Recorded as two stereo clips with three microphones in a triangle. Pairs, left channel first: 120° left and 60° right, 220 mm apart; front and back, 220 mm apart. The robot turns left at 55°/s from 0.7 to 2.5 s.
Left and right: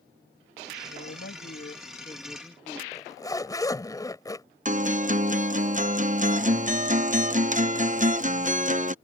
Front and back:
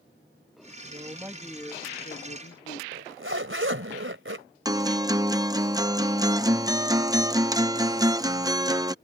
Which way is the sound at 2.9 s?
165° right.